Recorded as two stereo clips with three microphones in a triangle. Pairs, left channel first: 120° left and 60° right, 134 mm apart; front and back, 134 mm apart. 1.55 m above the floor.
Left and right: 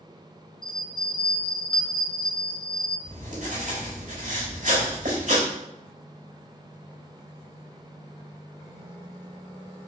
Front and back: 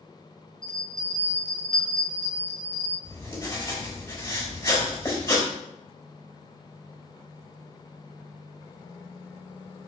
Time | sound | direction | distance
0.6 | a bell | 175° left | 0.9 m
3.0 | writing | 65° right | 3.5 m